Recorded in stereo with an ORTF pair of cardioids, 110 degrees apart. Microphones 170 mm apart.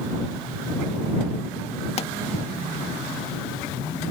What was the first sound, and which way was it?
A pop, 40° left.